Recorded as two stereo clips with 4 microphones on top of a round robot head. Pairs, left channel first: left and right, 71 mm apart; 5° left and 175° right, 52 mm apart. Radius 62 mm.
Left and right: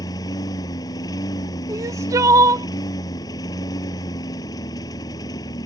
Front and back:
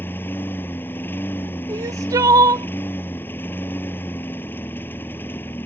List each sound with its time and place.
0.0 s a lawn mower: 55° left
1.7 s crying: 145° right